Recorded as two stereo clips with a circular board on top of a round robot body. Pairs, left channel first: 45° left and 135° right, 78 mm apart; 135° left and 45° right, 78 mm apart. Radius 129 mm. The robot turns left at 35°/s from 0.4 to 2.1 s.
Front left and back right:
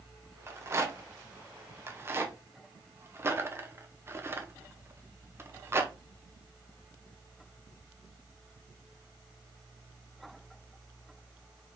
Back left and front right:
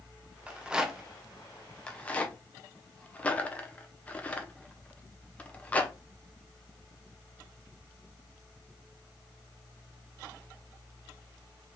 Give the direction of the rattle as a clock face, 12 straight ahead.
4 o'clock.